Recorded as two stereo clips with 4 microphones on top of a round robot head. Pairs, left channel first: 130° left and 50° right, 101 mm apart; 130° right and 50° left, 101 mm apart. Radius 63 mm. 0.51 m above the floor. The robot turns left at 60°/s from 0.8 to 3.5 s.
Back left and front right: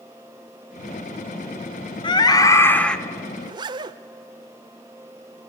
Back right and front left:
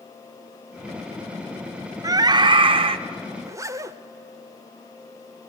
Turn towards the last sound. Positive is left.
turn(degrees=-10)